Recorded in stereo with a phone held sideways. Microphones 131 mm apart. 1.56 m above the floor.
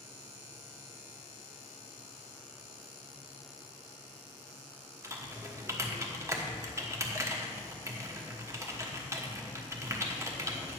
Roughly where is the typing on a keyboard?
Right.